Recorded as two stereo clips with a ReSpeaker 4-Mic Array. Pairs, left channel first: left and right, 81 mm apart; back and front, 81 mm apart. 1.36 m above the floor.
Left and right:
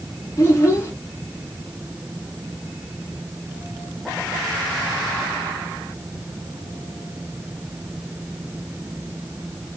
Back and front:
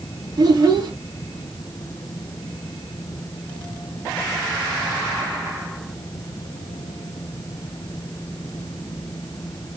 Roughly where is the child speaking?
Ahead left.